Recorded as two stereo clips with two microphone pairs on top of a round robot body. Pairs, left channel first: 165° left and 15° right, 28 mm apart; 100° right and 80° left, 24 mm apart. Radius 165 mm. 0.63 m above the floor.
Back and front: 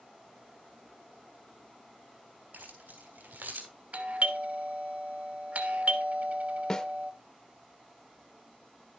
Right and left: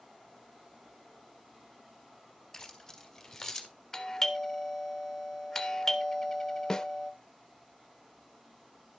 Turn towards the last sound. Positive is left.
turn(degrees=-145)